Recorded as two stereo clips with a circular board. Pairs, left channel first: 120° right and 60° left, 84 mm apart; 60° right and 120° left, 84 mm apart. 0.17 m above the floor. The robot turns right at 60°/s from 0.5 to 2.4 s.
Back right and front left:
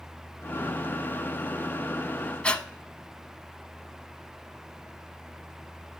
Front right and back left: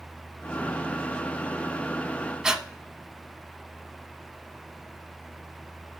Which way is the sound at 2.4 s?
170° right.